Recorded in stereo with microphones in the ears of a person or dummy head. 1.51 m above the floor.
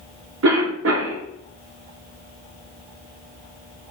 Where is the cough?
80° right, 0.9 m.